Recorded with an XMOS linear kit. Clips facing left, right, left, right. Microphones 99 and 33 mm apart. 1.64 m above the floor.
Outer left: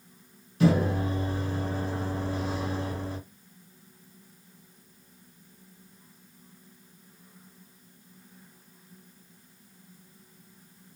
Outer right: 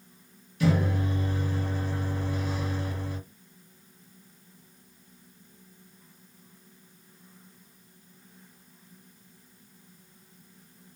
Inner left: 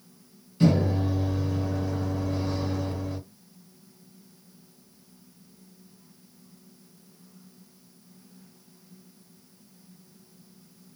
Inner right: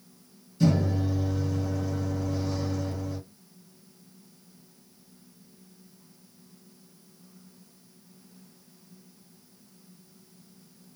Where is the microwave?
35° left (ahead or behind), 1.3 m.